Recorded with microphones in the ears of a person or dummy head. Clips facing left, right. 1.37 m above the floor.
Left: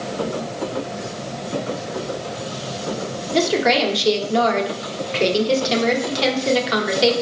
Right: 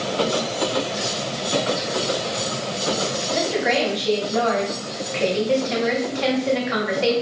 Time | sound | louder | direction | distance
3.3 | a woman speaking | left 5 dB | 50° left (ahead or behind) | 1.3 m